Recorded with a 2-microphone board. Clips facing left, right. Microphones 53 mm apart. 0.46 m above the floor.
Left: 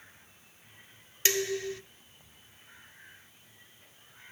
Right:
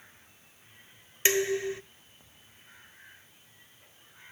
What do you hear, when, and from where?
1.2 s dishes clattering: 20° right (ahead or behind), 0.5 m